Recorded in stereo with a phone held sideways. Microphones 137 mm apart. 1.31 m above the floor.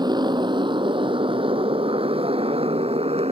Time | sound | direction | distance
0.0 | a motorcycle | 30° right (ahead or behind) | ?